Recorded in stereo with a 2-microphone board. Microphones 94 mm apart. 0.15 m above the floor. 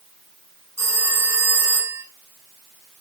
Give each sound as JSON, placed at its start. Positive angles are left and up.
{"t": 0.8, "sound": "a phone ringing", "side_deg": -30, "distance_m": 1.2}